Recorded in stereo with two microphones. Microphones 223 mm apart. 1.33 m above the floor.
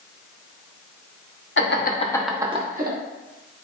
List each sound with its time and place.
1.6 s laughter: 60° left (ahead or behind), 1.0 m; by 3.0 s 45° right (ahead or behind), 1.2 m